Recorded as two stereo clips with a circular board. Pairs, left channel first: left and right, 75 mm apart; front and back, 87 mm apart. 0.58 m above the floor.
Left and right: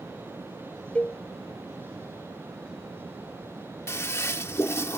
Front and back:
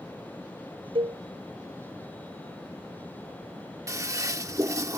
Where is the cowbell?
165° left.